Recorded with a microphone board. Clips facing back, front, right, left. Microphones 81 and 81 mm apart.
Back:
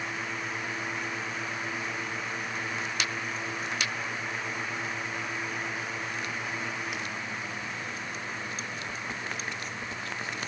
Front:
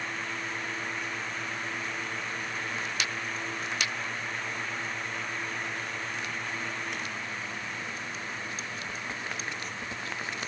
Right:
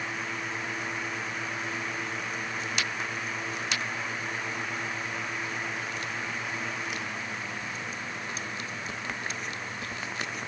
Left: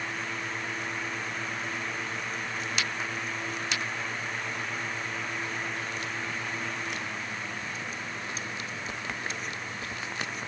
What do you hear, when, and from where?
Only background noise.